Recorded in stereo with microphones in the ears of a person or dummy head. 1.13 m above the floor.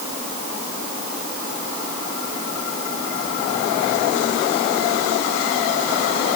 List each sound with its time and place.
Only background noise.